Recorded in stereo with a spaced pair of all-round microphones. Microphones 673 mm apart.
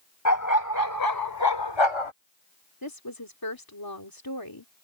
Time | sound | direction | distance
0.2 | a dog barking | 25° left (ahead or behind) | ?
2.8 | a woman speaking | 30° left (ahead or behind) | ?